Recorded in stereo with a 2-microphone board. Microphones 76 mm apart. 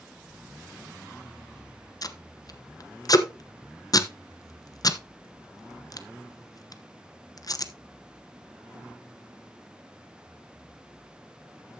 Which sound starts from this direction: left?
Tape being pulled, at 2.0 s.